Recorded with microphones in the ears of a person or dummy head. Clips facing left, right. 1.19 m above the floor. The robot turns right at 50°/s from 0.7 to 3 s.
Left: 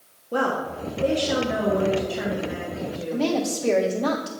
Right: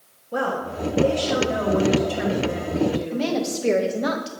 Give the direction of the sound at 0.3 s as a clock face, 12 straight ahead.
8 o'clock.